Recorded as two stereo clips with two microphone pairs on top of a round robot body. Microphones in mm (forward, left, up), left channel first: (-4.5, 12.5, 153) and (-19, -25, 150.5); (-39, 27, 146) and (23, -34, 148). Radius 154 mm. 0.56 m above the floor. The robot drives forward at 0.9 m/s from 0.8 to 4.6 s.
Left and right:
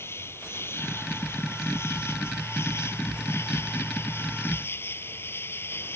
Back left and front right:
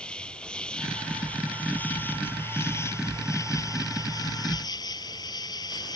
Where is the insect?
55° left; by 6.0 s 90° left.